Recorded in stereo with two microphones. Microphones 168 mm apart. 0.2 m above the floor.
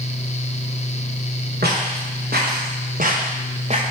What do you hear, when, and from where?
1.6 s footsteps: 70° right (ahead or behind), 3.5 m; by 3.8 s 40° right (ahead or behind), 1.7 m